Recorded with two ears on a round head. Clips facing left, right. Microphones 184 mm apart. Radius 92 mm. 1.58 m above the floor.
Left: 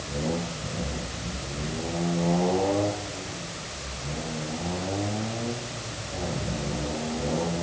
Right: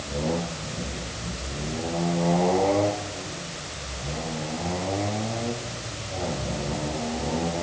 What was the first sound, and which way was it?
Only background noise.